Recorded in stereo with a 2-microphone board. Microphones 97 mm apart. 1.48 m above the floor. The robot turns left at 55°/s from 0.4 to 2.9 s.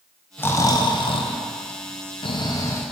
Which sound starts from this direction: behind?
Snoring, at 0.4 s.